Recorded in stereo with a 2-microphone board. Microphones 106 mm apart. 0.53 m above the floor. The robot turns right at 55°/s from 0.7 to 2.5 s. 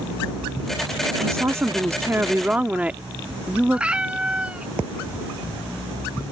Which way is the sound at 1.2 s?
25° right (ahead or behind).